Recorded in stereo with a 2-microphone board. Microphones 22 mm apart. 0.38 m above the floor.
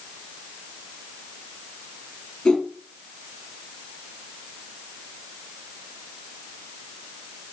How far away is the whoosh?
About 4 m.